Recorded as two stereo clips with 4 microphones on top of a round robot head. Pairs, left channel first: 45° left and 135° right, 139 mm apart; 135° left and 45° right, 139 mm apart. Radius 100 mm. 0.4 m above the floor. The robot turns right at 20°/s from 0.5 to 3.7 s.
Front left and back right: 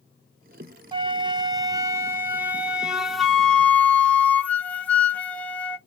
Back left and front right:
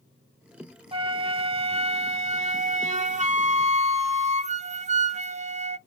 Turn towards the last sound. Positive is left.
turn(degrees=-35)